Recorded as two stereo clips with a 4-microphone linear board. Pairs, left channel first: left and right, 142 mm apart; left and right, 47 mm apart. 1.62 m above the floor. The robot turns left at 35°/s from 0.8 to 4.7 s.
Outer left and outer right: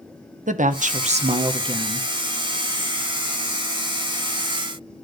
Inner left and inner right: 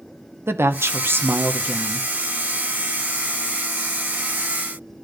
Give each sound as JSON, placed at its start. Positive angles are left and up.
{"t": 0.5, "sound": "a woman speaking", "azimuth_deg": -115, "distance_m": 0.8}